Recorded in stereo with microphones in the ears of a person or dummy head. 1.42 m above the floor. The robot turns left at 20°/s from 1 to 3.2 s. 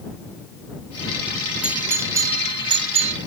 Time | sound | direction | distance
1.6 | a doorbell | 10° right (ahead or behind) | ?